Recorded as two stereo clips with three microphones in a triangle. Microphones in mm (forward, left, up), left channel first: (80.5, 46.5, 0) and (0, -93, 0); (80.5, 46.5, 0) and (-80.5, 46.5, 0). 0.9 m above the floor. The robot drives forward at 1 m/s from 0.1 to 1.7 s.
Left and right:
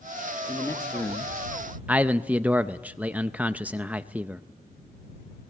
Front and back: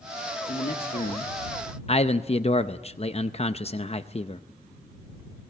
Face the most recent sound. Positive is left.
turn(degrees=-40)